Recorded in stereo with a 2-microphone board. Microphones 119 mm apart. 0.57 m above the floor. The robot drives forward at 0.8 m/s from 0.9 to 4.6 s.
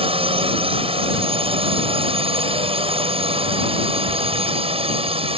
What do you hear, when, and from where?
0.0 s a drone: 55° right (ahead or behind)